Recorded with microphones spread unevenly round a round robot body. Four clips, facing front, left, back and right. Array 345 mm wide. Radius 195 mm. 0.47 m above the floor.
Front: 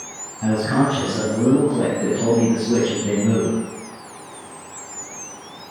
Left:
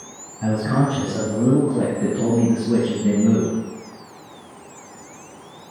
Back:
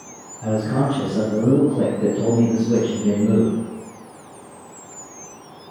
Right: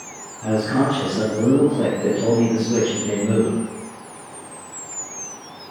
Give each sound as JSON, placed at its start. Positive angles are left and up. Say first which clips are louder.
{"t": 0.4, "sound": "a man speaking", "louder": "right 1 dB, front 2 dB", "azimuth_deg": 70, "distance_m": 4.5}